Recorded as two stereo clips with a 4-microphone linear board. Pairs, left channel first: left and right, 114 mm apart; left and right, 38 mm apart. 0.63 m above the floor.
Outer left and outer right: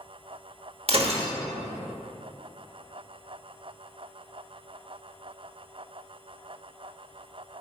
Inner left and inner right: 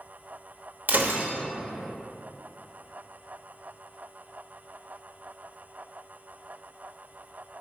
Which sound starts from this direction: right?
Breaking glass, at 0.9 s.